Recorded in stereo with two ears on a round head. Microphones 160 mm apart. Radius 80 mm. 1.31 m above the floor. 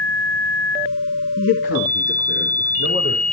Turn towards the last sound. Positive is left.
turn(degrees=85)